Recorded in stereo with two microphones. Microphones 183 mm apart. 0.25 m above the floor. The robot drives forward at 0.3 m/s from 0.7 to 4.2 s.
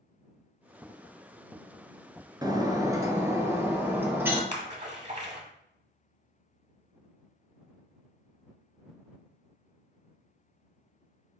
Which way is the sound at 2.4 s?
20° right (ahead or behind).